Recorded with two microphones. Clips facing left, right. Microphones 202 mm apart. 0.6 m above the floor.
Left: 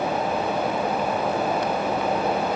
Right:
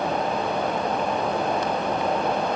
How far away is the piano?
No piano in this recording.